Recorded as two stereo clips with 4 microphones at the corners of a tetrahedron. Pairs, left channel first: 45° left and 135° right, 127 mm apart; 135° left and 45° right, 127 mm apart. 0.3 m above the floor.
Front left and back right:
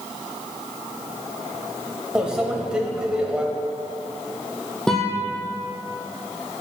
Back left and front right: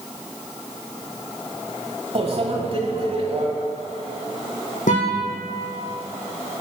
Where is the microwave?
55° right, 1.2 m.